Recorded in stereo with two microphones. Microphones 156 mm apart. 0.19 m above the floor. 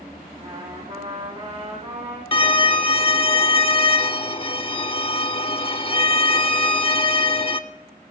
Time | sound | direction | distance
0.4 | a trumpet | 40° right (ahead or behind) | 5 m
2.3 | a violin | 35° left (ahead or behind) | 0.5 m